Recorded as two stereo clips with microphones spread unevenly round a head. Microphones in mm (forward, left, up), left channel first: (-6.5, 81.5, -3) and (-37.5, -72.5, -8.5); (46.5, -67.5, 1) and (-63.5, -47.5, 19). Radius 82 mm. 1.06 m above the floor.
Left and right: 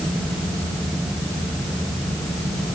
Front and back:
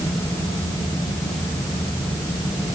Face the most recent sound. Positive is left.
No sound to turn to.